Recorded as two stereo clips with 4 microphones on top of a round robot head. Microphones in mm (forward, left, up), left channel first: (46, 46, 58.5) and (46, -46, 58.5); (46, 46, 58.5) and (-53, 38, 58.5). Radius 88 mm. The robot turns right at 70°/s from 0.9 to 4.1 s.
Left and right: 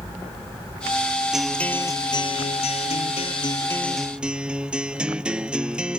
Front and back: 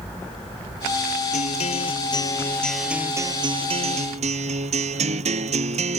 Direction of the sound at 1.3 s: 5° right.